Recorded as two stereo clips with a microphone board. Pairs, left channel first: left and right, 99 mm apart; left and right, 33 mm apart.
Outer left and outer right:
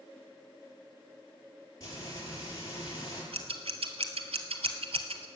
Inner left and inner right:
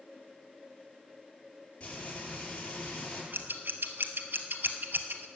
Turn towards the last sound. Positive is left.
turn(degrees=-80)